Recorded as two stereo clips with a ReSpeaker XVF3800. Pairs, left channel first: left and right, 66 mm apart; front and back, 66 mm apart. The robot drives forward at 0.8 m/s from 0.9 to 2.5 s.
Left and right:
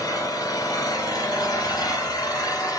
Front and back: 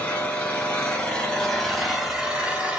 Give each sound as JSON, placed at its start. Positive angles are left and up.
{"t": 0.0, "sound": "an engine running", "azimuth_deg": 65, "distance_m": 2.0}